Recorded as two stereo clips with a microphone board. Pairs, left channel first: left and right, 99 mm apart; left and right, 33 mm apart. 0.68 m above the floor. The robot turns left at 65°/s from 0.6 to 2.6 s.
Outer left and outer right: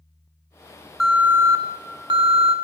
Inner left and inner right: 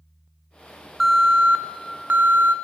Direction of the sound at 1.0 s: 5° right.